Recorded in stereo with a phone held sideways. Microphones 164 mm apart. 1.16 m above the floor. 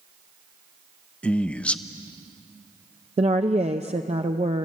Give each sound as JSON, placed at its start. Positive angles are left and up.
{"t": 1.2, "sound": "a man speaking", "side_deg": 5, "distance_m": 0.8}
{"t": 3.2, "sound": "a woman speaking", "side_deg": -40, "distance_m": 0.6}